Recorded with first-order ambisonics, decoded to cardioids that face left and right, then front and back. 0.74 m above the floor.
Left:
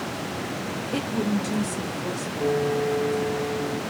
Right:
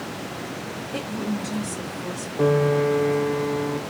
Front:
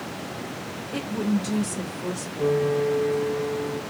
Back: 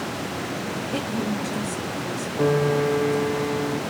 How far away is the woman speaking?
About 0.6 m.